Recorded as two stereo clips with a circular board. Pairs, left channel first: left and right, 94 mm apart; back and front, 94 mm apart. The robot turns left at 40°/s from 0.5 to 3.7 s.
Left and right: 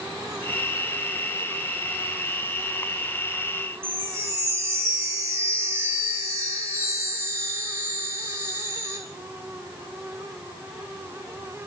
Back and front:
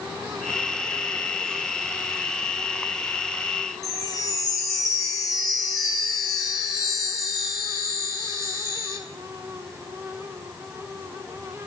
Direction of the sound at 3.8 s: 145° right.